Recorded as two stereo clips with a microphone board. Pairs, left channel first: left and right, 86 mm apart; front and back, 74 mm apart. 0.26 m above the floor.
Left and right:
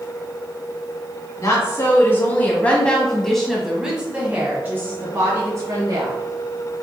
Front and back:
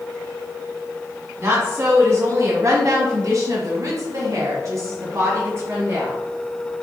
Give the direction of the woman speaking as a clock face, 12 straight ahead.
7 o'clock.